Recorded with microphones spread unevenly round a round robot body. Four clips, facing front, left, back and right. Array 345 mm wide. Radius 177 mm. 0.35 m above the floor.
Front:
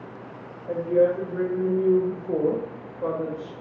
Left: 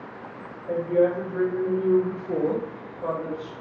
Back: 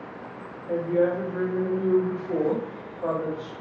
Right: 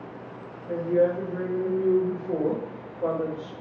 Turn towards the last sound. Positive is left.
turn(degrees=-55)